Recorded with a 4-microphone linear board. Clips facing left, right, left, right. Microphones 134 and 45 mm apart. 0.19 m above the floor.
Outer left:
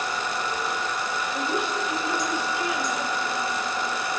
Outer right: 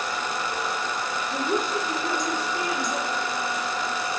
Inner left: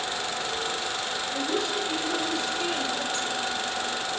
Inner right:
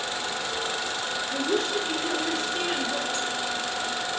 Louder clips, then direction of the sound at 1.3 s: Outer right 3 dB, inner right 3 dB; 40° right (ahead or behind).